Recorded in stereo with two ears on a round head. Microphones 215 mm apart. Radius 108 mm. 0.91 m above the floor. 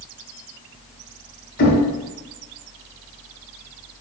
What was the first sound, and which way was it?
Knocking, 55° left (ahead or behind).